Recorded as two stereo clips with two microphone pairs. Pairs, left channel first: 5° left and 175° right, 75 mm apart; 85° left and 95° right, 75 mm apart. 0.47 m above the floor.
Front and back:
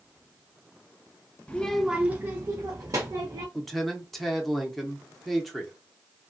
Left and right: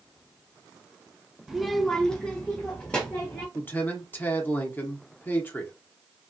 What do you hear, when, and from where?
1.5 s a child speaking: 30° right, 0.5 m; by 3.5 s 155° left, 1.1 m
3.5 s a man speaking: 90° left, 0.7 m